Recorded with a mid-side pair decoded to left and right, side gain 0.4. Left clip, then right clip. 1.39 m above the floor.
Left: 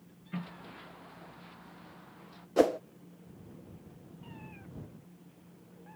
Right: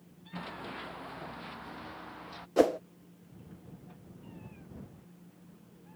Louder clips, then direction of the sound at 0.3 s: Right 6 dB; 55° right.